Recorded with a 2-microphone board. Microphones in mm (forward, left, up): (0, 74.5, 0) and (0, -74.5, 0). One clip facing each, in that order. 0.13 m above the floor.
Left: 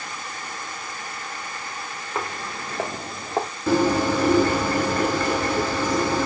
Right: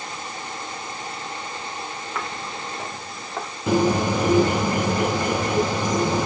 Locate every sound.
2.1 s footsteps: 30° left (ahead or behind), 1.0 m; by 3.5 s 35° left (ahead or behind), 0.7 m
3.7 s a bird: 15° right (ahead or behind), 1.7 m